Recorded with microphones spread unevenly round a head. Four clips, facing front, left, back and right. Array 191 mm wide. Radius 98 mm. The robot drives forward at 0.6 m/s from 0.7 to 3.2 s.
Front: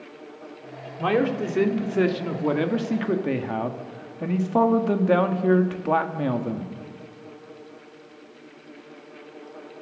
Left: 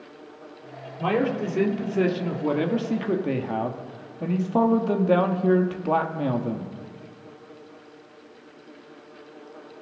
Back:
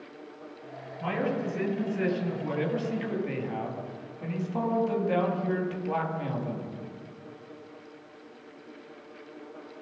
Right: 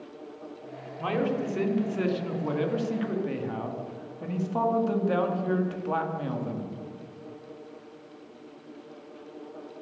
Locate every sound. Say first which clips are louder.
1.0 s a man speaking: left 4 dB, front 7 dB; 25° left, 3 m; by 6.7 s 40° left, 2 m